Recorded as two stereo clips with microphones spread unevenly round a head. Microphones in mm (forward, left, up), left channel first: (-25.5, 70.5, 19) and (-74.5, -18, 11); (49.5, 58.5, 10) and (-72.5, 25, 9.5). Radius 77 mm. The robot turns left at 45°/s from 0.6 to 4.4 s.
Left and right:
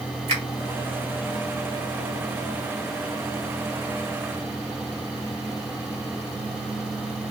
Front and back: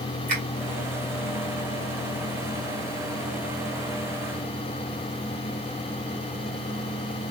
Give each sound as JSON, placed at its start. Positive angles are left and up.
{"t": 0.3, "sound": "a finger snap", "azimuth_deg": -120, "distance_m": 1.2}